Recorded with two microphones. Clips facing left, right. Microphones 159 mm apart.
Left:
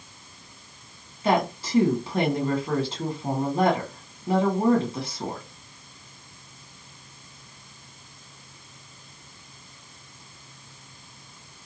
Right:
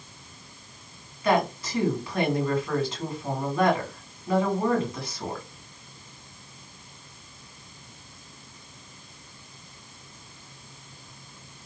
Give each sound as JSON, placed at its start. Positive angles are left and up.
{"t": 1.2, "sound": "a woman speaking", "side_deg": 30, "distance_m": 1.5}